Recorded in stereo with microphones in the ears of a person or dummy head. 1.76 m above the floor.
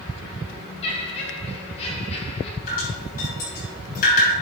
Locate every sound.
0.8 s laughter: 30° left (ahead or behind), 2 m
2.7 s dripping: 50° left (ahead or behind), 7 m